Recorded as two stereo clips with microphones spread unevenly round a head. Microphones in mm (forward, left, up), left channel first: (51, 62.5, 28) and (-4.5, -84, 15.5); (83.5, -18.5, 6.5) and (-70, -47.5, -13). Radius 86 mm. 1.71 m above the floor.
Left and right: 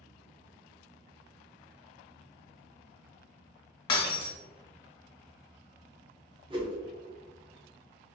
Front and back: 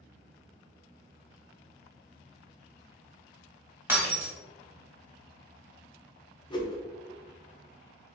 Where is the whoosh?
50° right, 1.0 m.